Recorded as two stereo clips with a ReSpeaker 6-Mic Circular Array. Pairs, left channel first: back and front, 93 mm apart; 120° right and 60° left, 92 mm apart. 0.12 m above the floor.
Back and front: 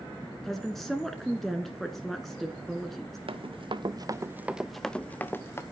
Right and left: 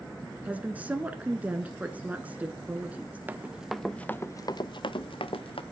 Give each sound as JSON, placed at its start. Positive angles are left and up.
{"t": 0.4, "sound": "a woman speaking", "azimuth_deg": 95, "distance_m": 1.2}
{"t": 3.3, "sound": "running footsteps", "azimuth_deg": -10, "distance_m": 1.1}